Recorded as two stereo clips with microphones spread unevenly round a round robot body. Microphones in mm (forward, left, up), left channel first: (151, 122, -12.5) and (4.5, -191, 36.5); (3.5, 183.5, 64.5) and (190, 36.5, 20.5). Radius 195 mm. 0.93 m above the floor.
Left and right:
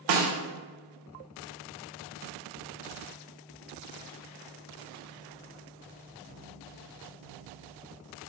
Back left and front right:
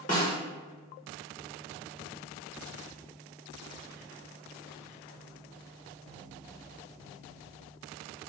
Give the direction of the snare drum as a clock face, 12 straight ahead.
5 o'clock.